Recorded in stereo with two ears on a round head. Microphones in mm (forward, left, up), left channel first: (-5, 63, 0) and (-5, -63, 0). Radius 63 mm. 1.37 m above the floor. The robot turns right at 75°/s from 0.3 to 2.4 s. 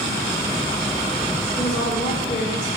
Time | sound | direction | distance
1.6 | a woman speaking | 10° left | 2 m